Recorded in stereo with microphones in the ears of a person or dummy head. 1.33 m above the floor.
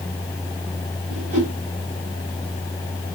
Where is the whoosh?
60° right (ahead or behind), 2.5 m.